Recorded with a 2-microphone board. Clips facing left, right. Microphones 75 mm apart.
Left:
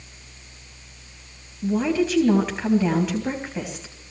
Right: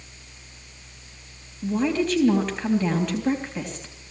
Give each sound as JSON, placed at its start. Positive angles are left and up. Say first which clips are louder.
{"t": 1.6, "sound": "a woman speaking", "louder": "left 2 dB", "side_deg": 5, "distance_m": 3.5}